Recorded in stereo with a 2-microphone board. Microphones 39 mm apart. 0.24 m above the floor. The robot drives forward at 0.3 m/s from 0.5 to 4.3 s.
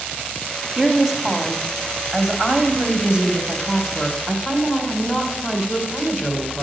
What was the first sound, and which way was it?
A woman speaking, 15° right (ahead or behind).